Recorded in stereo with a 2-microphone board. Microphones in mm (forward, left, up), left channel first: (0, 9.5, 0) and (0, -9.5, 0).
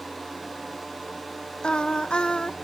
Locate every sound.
1.6 s singing: 60° left (ahead or behind), 0.8 m